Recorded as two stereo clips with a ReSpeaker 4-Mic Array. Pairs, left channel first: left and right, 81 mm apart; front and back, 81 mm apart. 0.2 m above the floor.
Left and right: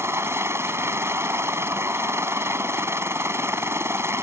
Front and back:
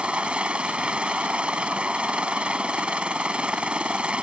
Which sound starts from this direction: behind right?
A helicopter, at 0.0 s.